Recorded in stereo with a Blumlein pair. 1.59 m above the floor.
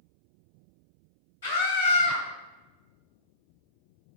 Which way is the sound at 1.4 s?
60° left.